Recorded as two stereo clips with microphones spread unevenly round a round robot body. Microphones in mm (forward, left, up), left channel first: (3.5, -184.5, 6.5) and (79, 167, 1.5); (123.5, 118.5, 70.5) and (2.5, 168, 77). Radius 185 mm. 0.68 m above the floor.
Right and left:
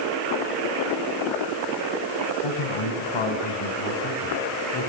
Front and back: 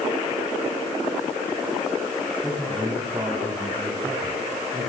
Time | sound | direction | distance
2.4 | a man speaking | 110° right | 4.5 m